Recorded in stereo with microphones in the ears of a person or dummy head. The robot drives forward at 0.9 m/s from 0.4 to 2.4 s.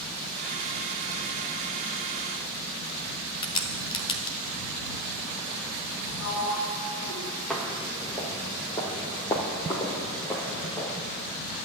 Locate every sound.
3.4 s a crack: 30° left (ahead or behind), 1.0 m
6.2 s a sliding door: 80° left, 5 m
7.5 s footsteps: 5° left (ahead or behind), 1.9 m; by 11.0 s 10° left (ahead or behind), 2.5 m